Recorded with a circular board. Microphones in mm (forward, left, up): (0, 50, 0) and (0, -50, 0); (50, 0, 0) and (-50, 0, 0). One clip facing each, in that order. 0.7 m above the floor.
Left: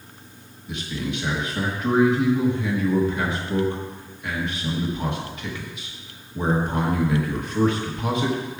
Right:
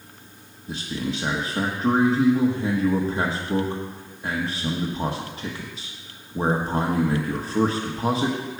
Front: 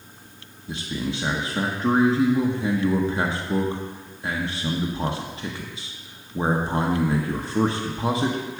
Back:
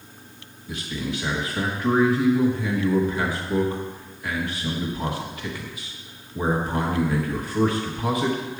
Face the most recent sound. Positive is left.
turn(degrees=-50)